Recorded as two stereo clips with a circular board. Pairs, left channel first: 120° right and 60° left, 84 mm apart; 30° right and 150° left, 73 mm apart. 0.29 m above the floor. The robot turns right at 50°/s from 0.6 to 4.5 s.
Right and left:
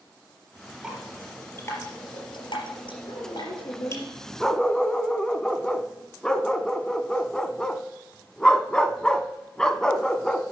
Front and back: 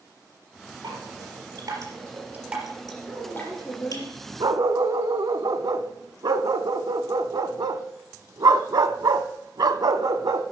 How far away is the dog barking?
About 0.6 m.